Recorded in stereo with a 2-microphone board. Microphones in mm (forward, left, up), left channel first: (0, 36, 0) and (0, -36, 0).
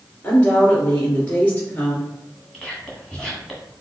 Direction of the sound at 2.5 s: 10° left (ahead or behind).